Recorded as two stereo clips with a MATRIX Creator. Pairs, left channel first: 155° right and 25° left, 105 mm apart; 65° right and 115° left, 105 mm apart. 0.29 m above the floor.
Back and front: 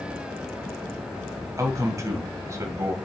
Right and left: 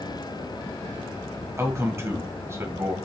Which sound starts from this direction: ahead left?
A man speaking, at 1.6 s.